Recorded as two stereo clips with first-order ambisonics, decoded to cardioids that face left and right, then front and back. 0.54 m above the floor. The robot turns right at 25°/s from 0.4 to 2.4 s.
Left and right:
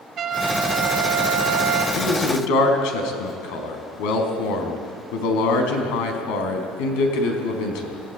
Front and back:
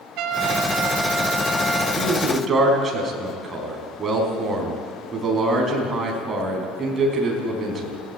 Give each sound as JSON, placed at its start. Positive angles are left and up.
{"t": 0.2, "sound": "a trumpet", "azimuth_deg": -145, "distance_m": 2.5}
{"t": 1.9, "sound": "a man speaking", "azimuth_deg": 95, "distance_m": 4.0}